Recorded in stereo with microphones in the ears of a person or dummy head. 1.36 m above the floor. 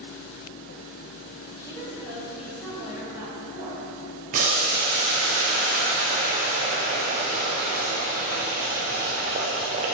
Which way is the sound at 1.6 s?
15° left (ahead or behind).